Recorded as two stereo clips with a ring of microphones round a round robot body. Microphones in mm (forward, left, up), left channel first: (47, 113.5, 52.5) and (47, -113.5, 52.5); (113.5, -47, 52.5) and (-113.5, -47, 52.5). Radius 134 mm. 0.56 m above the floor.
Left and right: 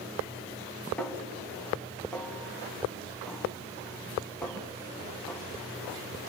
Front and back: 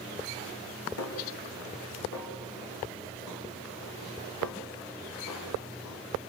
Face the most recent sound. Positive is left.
turn(degrees=5)